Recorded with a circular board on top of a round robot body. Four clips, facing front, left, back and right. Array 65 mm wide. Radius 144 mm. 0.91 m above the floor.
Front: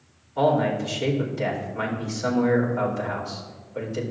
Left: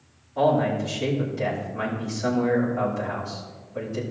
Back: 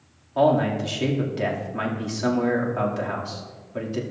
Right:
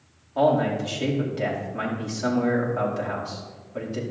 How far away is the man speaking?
About 2.5 m.